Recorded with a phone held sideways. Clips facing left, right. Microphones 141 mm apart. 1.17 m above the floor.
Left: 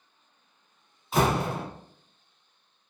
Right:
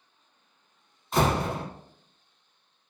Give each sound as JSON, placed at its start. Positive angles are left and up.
{"t": 1.1, "sound": "a door slam", "side_deg": 5, "distance_m": 1.4}